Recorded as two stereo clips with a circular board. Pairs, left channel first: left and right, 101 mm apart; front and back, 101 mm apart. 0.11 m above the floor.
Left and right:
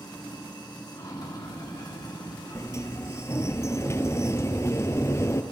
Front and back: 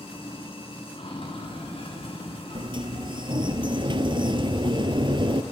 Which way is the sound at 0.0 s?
35° left.